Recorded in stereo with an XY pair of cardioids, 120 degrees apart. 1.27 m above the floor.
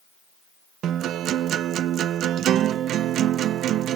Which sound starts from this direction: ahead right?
A guitar, at 0.8 s.